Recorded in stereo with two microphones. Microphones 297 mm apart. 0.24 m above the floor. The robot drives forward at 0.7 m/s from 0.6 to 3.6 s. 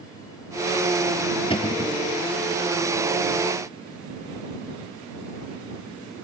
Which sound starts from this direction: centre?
A cupboard door, at 1.5 s.